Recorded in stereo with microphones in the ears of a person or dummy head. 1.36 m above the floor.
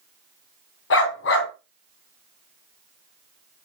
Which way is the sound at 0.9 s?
60° left (ahead or behind).